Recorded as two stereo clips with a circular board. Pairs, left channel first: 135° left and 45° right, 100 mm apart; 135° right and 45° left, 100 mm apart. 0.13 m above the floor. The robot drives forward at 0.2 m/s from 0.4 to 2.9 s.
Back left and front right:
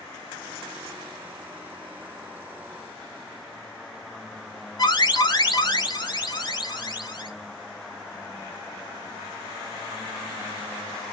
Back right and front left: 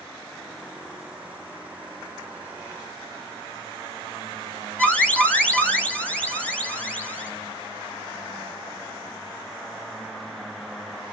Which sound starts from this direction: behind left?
An alarm, at 4.8 s.